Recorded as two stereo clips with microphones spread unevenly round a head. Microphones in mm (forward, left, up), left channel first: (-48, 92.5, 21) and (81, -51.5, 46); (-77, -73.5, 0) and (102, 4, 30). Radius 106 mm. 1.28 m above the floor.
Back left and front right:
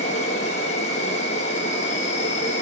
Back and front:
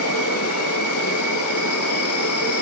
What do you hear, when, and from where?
0.0 s an insect: 165° right, 4.5 m